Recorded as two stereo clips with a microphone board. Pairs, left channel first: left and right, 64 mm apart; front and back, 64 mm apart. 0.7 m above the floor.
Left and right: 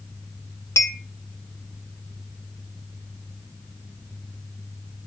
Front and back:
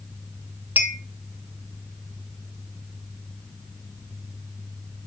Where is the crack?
No crack in this recording.